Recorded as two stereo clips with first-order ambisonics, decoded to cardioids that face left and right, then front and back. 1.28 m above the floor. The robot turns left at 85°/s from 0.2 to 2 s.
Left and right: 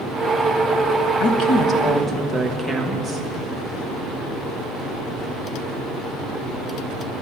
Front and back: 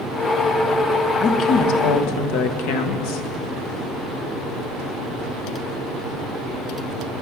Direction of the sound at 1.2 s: 70° left.